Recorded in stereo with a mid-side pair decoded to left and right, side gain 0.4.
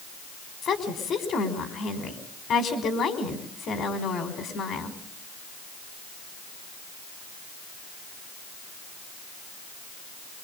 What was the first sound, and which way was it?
A woman speaking, 65° left.